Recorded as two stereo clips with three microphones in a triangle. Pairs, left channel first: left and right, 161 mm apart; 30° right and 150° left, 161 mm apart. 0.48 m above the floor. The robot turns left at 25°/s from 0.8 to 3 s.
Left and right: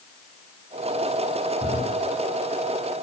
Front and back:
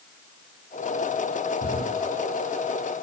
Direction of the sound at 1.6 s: 15° left.